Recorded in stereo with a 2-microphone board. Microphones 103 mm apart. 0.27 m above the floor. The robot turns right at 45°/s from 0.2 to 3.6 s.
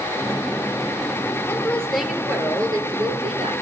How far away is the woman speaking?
About 5 m.